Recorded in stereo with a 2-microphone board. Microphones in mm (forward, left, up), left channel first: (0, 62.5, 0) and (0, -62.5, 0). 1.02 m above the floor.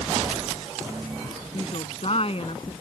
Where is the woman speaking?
50° left (ahead or behind).